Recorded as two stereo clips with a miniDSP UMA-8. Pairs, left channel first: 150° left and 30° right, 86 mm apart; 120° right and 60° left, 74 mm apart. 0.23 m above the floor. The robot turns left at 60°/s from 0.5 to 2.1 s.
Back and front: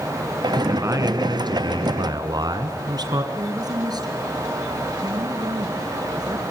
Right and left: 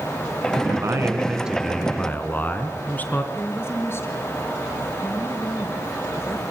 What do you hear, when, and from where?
0.7 s a man speaking: 30° left, 3 m; by 3.2 s 55° right, 3 m
3.3 s a woman speaking: 65° right, 5 m